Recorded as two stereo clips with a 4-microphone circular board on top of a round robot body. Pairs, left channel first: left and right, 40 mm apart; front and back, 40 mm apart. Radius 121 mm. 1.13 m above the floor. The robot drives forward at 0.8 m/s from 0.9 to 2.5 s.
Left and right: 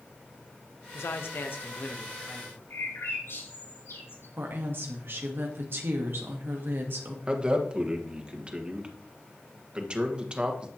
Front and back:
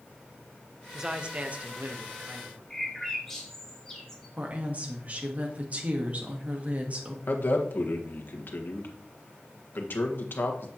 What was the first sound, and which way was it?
A man speaking, 105° left.